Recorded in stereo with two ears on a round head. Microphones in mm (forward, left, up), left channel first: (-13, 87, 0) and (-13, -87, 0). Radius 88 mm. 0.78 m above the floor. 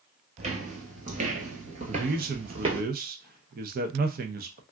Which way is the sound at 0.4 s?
35° right (ahead or behind).